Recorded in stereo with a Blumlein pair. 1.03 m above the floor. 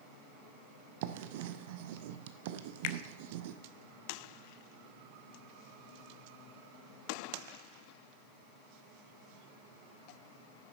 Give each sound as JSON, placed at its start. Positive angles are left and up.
{"t": 1.0, "sound": "writing", "azimuth_deg": -50, "distance_m": 0.7}
{"t": 2.8, "sound": "a finger snap", "azimuth_deg": 45, "distance_m": 0.6}